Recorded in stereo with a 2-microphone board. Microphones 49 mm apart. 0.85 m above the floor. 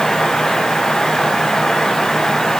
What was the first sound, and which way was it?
Only background noise.